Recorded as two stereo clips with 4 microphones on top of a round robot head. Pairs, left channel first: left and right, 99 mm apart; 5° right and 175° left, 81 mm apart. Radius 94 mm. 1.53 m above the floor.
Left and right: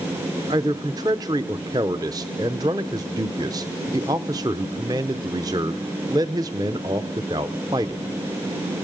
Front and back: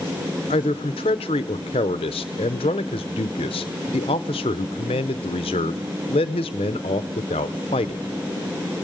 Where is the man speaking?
30° right, 0.6 m.